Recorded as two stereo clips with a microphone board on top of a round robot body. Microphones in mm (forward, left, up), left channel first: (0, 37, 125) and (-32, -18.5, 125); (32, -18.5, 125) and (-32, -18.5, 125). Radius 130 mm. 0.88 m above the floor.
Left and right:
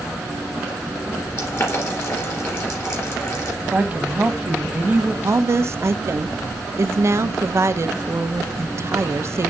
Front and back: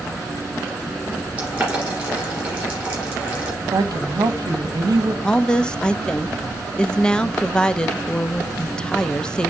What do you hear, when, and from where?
1.4 s boiling: 105° left, 2.5 m
3.6 s a woman speaking: 175° left, 1.3 m
5.2 s a woman speaking: 75° right, 0.7 m